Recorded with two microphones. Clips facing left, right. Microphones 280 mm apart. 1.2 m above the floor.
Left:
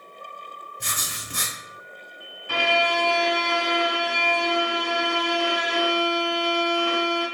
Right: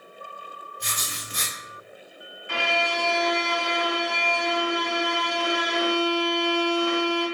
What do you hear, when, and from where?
0.8 s writing: 55° left (ahead or behind), 0.9 m
2.5 s a violin: 45° left (ahead or behind), 1.3 m